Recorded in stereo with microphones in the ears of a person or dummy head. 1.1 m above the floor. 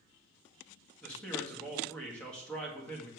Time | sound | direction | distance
1.0 | a man speaking | 5° left (ahead or behind) | 2.0 m